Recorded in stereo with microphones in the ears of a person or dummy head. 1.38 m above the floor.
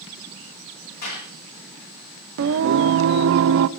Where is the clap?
55° left (ahead or behind), 9.5 m.